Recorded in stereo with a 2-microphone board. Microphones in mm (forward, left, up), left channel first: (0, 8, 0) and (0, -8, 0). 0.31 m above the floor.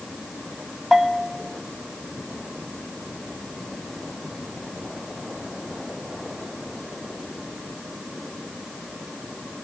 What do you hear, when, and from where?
0.9 s a bell: 25° right (ahead or behind), 1.5 m